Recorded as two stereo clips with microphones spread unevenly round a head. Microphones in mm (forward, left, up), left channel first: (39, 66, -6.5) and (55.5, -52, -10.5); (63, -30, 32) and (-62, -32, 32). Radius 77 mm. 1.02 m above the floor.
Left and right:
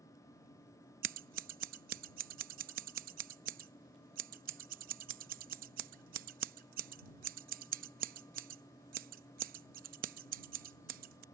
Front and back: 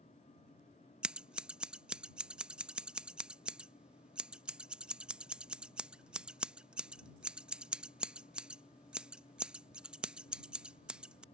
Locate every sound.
1.0 s scissors: 95° right